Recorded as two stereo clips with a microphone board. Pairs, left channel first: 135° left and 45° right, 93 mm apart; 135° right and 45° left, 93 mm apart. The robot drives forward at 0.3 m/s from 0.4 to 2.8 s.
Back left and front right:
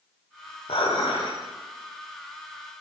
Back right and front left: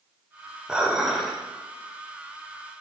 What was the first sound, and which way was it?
Dishes clattering, 125° left.